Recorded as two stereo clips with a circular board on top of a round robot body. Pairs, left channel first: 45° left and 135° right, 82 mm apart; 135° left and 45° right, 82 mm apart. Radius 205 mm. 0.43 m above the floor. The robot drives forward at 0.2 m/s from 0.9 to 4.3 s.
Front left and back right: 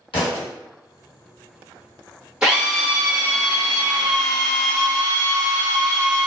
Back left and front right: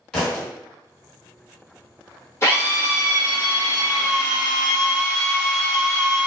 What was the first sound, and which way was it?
A thud, 55° left.